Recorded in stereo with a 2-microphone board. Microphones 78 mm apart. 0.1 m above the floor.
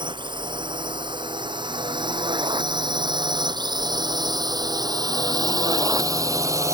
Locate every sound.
0.0 s a drone: 75° right (ahead or behind); by 6.7 s 40° right (ahead or behind)